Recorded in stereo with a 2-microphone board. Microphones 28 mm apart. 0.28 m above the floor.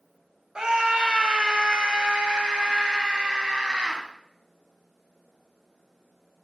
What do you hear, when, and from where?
0.6 s a scream: 35° right (ahead or behind), 1.5 m